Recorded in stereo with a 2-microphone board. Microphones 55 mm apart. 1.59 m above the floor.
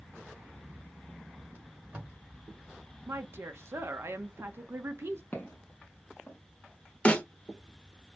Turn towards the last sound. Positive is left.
turn(degrees=20)  # may be behind; listen again after turning